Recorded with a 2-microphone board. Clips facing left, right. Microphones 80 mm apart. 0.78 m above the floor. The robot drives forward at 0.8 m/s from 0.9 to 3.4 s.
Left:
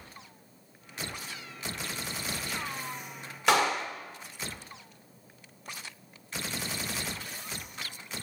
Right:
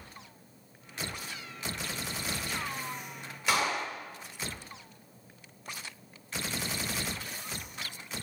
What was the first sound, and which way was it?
A clap, 75° left (ahead or behind).